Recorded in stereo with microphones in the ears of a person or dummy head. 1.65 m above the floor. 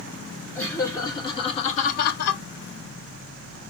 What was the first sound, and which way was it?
Laughter, 20° left (ahead or behind).